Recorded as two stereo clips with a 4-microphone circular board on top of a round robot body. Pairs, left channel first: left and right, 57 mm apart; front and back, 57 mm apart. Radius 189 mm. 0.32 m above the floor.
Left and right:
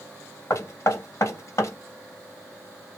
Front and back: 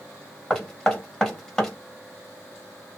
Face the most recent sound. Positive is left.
turn(degrees=80)